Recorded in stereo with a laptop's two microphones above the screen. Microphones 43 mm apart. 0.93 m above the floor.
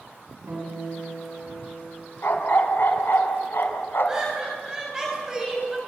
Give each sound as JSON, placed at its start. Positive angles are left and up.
{"t": 0.5, "sound": "a guitar", "side_deg": -60, "distance_m": 8.5}
{"t": 2.2, "sound": "a dog barking", "side_deg": 55, "distance_m": 2.5}
{"t": 4.1, "sound": "laughter", "side_deg": -15, "distance_m": 7.0}